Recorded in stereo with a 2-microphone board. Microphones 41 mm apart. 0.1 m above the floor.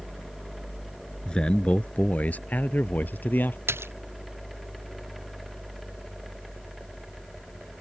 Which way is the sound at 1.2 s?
20° left (ahead or behind).